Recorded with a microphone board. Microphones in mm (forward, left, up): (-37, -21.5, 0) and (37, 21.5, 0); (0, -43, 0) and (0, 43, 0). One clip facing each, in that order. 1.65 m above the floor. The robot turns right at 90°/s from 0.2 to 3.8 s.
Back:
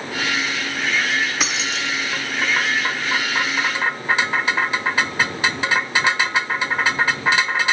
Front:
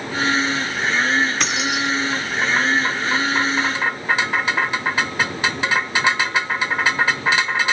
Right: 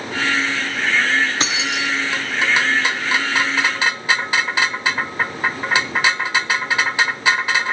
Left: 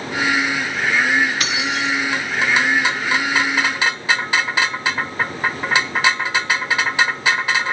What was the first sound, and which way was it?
Keys jangling, 70° right.